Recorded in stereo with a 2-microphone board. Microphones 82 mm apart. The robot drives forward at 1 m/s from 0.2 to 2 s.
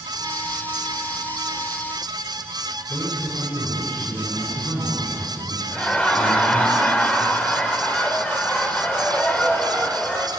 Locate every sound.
2.9 s a man speaking: 35° left (ahead or behind), 8 m
5.7 s laughter: 15° left (ahead or behind), 2.5 m